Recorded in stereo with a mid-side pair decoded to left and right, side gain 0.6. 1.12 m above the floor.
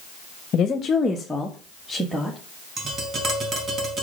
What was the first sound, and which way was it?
A woman speaking, 45° left.